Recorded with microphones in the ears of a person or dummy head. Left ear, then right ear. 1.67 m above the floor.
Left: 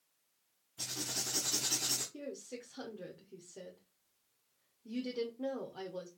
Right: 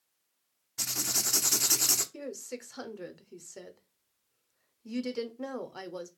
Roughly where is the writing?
Right.